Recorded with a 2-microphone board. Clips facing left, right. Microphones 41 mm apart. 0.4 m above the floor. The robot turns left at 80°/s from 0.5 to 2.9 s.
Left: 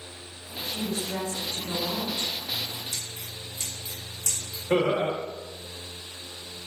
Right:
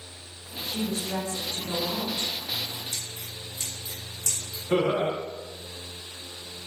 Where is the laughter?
35° left (ahead or behind), 1.1 m.